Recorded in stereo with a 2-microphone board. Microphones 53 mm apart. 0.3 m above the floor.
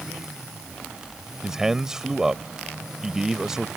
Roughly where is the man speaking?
Centre.